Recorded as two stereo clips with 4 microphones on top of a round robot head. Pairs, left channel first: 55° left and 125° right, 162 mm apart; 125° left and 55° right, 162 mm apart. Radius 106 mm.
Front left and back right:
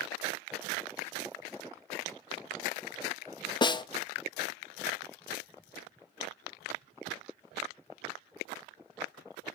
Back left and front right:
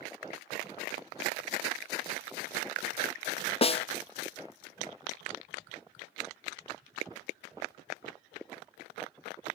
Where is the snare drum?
100° left, 0.7 m.